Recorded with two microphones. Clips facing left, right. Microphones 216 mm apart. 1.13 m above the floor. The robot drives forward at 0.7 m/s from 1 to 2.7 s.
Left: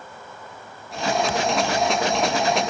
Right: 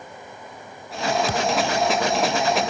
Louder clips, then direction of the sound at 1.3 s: Even; 40° right (ahead or behind).